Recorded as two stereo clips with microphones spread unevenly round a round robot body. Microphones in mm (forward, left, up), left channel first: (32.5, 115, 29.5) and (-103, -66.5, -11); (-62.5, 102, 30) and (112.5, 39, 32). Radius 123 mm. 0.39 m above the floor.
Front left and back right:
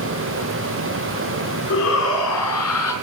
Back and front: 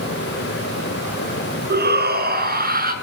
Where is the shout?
10° left, 5 m; by 2.9 s 20° left, 5.5 m.